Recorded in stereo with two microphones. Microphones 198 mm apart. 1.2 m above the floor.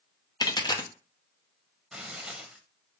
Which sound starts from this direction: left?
A dropped coin, at 0.4 s.